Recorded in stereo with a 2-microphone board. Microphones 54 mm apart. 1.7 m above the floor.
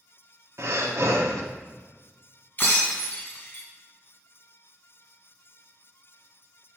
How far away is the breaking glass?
About 1.9 m.